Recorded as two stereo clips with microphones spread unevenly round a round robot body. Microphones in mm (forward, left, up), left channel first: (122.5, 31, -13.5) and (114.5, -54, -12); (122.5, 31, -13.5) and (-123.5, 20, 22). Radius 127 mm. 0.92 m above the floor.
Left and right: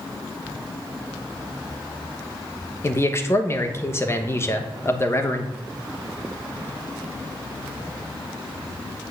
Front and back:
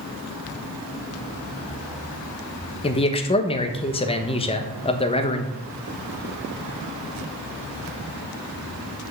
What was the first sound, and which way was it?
A man speaking, 45° left.